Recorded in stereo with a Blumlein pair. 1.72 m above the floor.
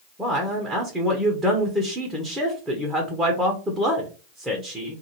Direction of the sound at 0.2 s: 10° right.